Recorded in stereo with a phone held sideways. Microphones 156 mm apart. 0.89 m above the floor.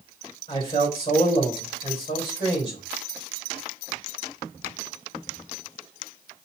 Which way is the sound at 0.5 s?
35° left (ahead or behind).